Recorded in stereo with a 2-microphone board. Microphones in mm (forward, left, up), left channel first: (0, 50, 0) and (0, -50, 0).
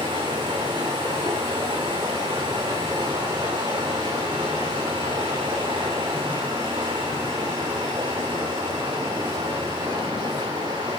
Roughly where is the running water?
Right.